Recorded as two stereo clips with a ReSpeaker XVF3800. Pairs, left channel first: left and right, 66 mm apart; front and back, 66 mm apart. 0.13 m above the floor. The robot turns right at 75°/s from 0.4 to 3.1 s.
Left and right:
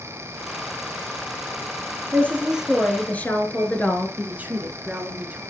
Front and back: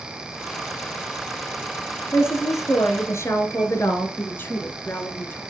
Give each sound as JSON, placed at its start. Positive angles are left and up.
{"t": 2.1, "sound": "a woman speaking", "azimuth_deg": -45, "distance_m": 1.8}
{"t": 4.2, "sound": "a woman speaking", "azimuth_deg": -35, "distance_m": 1.6}